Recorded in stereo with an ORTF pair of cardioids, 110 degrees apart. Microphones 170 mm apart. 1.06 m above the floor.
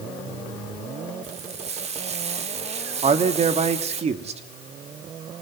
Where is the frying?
40° right, 2 m.